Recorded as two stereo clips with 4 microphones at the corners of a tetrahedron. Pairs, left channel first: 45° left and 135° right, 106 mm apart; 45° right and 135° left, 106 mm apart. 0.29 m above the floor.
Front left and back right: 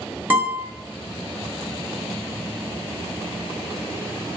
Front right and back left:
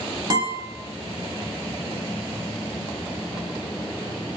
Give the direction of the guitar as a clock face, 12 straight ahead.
7 o'clock.